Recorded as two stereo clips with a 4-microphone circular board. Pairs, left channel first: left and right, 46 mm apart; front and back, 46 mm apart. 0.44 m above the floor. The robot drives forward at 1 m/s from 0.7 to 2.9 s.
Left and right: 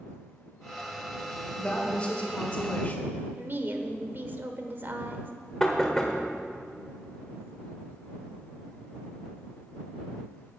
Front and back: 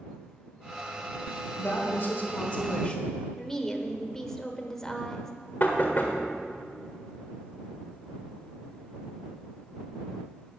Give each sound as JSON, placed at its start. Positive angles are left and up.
{"t": 1.6, "sound": "a woman speaking", "azimuth_deg": 25, "distance_m": 2.5}
{"t": 3.4, "sound": "a woman speaking", "azimuth_deg": -75, "distance_m": 1.1}
{"t": 5.6, "sound": "knocking", "azimuth_deg": 15, "distance_m": 1.5}